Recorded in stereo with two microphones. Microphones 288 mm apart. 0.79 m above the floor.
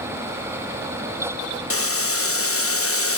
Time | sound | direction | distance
1.7 | boiling | 50° left (ahead or behind) | 0.8 m